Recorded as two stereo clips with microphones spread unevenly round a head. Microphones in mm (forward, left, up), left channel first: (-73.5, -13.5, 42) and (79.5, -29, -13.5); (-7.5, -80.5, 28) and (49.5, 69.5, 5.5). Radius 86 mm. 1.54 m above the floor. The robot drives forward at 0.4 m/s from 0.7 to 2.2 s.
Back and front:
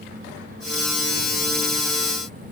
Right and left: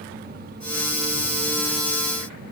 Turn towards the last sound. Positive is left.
No sound to turn to.